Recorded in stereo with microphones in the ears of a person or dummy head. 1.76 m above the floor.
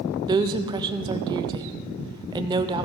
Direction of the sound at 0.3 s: 20° right (ahead or behind).